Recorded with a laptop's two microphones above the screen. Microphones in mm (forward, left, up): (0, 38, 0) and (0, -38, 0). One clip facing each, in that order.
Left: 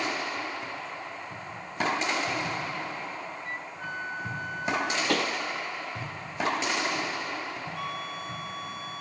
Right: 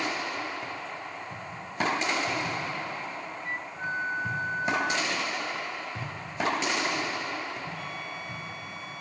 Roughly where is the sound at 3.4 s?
Right.